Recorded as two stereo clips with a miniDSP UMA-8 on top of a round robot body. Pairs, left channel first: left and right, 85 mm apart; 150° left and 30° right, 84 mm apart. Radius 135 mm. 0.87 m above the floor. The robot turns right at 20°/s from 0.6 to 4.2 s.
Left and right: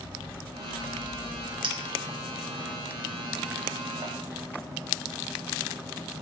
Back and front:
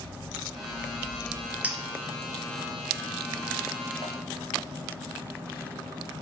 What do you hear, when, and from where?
1.6 s a clink: 100° right, 1.2 m; by 4.1 s 50° right, 1.2 m